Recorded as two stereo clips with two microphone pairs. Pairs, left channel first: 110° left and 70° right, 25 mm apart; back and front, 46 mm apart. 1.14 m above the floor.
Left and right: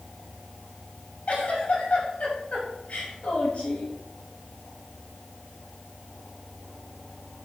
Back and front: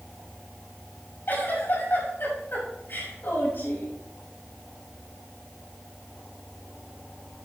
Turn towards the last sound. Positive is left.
turn(degrees=145)